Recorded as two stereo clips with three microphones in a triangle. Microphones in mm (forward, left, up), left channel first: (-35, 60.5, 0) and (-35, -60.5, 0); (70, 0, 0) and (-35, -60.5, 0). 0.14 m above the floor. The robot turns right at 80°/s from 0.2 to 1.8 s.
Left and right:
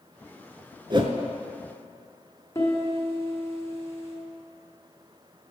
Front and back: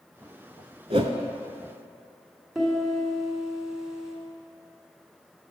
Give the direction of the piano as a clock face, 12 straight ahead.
8 o'clock.